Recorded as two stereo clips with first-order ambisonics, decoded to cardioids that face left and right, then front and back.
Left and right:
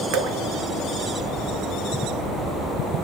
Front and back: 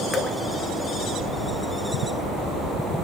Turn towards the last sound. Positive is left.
turn(degrees=-70)